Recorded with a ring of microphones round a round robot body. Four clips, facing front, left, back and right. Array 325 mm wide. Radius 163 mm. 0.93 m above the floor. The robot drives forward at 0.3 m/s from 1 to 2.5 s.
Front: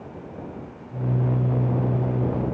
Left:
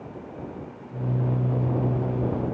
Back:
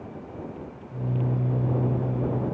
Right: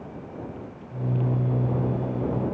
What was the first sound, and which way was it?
Only background noise.